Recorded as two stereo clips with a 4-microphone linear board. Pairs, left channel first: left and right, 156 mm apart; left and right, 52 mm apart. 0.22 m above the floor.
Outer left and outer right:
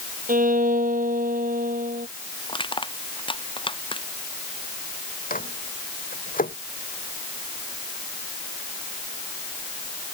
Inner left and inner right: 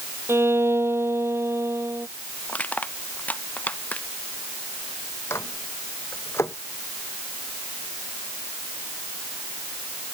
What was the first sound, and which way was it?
A violin, 60° right (ahead or behind).